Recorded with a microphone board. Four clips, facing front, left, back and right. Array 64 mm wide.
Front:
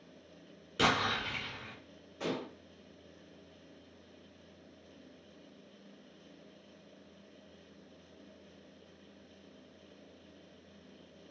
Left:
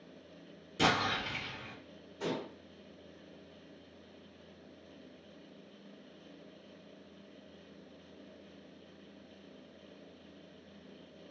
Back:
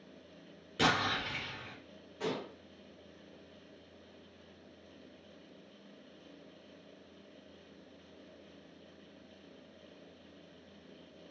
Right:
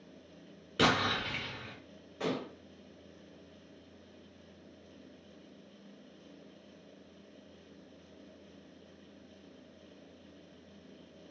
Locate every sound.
0.8 s an explosion: 80° right, 1.9 m
2.2 s dishes clattering: 90° right, 1.4 m